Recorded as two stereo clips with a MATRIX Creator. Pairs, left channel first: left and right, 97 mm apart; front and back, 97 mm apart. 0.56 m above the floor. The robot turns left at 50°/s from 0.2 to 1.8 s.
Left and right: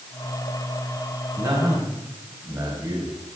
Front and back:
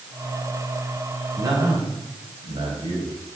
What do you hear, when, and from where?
1.4 s a man speaking: 130° right, 4 m; by 3.2 s 150° right, 4 m